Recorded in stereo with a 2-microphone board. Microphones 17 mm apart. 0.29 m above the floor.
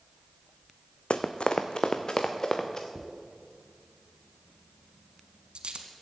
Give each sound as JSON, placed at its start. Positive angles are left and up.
{"t": 1.1, "sound": "running footsteps", "side_deg": 75, "distance_m": 0.9}
{"t": 3.0, "sound": "a dropped coin", "side_deg": -60, "distance_m": 1.4}